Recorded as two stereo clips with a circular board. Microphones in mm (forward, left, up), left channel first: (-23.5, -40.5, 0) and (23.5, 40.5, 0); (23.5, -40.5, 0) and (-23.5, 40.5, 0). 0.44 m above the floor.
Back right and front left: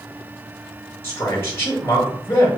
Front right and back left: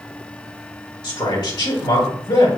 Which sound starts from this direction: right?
A man speaking, at 1.0 s.